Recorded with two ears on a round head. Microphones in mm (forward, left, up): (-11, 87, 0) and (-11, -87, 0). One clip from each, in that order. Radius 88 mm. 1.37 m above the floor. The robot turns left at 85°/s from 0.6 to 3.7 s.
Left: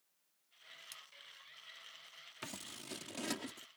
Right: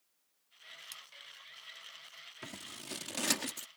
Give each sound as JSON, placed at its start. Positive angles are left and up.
{"t": 0.9, "sound": "a splash", "side_deg": -10}
{"t": 2.4, "sound": "scissors", "side_deg": 25}